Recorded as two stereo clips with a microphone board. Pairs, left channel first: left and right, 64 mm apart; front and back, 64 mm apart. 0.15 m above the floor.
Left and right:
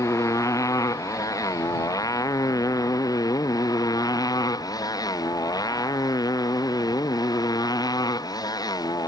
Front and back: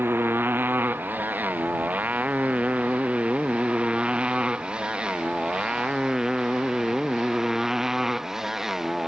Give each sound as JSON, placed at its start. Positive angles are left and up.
{"t": 0.0, "sound": "a motorcycle", "azimuth_deg": 125}